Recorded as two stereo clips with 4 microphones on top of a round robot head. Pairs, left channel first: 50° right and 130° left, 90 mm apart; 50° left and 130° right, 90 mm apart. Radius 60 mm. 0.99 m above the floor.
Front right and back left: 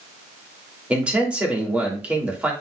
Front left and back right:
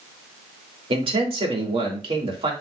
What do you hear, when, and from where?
0.9 s a man speaking: 150° right, 2.5 m